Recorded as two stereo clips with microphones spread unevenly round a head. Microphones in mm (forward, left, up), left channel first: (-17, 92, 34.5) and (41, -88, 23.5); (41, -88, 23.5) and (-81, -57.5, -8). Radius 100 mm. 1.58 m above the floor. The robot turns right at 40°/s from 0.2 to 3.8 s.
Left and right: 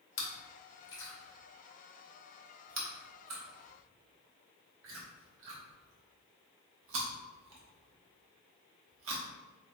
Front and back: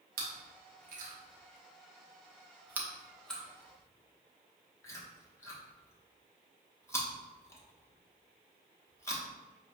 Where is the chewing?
145° left, 1.0 m; by 9.2 s 70° right, 1.0 m.